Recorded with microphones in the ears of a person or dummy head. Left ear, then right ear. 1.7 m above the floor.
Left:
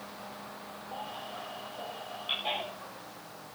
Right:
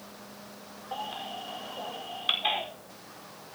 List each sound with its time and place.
0.9 s a baby crying: 65° right (ahead or behind), 4.5 m